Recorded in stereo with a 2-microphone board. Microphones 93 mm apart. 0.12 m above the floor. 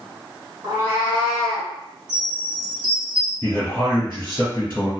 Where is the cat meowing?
30° right (ahead or behind), 1.4 m; by 1.7 s 15° left (ahead or behind), 0.9 m.